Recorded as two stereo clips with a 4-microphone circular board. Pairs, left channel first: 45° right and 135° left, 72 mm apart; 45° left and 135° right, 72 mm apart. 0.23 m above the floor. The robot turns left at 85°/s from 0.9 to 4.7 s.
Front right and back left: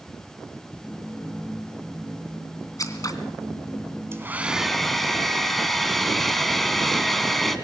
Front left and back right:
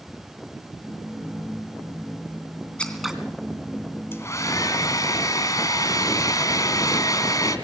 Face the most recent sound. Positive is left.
turn(degrees=40)